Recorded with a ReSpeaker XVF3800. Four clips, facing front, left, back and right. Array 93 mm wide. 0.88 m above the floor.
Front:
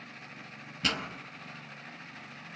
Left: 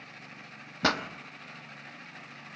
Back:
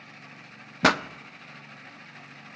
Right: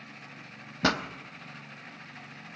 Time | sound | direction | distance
0.8 | a pop | straight behind | 0.6 m